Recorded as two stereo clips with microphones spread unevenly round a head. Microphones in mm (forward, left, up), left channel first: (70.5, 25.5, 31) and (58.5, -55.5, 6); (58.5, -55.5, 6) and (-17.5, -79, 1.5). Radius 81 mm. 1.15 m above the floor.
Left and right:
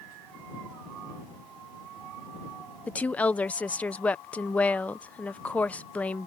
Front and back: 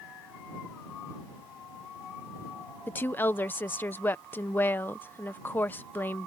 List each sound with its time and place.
2.9 s a woman speaking: 10° right